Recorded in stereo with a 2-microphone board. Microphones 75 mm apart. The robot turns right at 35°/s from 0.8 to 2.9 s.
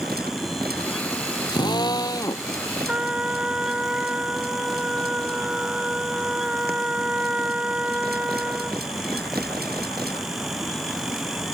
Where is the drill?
100° left; by 2.5 s 135° left.